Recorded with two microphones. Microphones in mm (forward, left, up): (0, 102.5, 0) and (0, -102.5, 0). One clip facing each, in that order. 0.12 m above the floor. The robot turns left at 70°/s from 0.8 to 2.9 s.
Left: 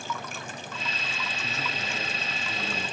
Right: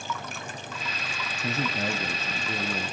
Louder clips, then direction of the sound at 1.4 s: Right 10 dB; 65° right.